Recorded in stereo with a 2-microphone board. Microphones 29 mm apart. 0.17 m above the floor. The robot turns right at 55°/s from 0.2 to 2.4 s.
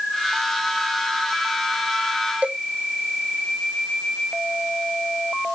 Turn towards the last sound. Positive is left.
turn(degrees=-50)  # may be behind; listen again after turning